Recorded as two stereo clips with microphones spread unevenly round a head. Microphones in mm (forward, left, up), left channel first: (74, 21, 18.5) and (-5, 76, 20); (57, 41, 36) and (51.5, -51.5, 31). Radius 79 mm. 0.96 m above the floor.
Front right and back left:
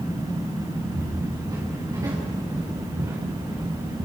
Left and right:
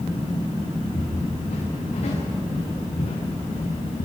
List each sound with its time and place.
0.9 s footsteps: 90° left, 9.5 m; by 4.0 s 80° left, 5.5 m